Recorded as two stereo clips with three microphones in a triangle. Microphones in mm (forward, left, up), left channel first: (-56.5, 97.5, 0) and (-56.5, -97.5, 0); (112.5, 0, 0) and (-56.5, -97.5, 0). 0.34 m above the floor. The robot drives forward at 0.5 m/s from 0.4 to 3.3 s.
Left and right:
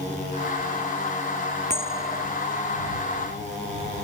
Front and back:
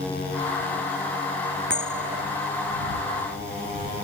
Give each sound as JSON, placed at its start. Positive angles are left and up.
{"t": 1.7, "sound": "a bell", "azimuth_deg": -145}